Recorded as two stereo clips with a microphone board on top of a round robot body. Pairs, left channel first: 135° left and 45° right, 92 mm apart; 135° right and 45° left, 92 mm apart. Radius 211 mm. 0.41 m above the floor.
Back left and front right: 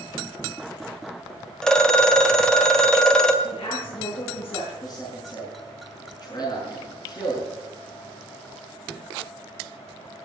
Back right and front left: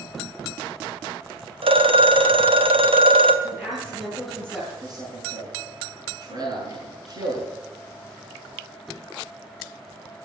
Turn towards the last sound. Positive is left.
turn(degrees=90)